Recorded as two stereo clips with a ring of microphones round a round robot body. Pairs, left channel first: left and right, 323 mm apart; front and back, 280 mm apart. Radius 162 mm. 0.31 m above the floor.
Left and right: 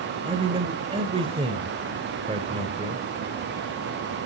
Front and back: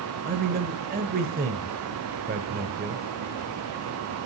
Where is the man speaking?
150° right, 1.0 m.